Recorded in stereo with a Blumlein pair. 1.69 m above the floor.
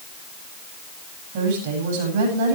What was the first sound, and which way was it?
A woman speaking, 50° right.